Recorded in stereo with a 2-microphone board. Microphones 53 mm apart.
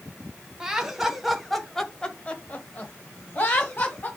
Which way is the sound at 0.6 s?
10° right (ahead or behind).